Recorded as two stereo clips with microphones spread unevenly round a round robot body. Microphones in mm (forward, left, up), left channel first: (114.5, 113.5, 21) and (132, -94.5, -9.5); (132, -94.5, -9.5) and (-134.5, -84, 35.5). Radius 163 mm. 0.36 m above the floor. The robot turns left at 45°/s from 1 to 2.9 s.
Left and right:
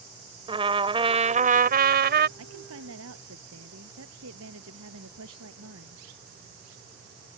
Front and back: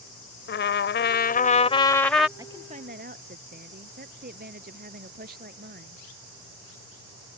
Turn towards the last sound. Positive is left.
turn(degrees=-125)